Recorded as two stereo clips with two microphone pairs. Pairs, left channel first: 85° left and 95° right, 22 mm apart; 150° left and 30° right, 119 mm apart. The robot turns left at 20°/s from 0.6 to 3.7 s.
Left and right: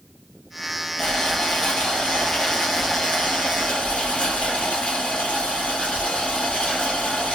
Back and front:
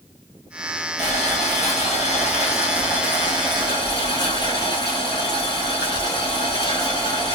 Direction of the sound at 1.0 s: 155° left.